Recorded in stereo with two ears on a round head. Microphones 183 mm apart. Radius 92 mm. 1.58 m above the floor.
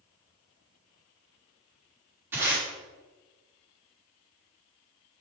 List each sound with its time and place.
2.3 s tape being pulled: 10° right (ahead or behind), 4 m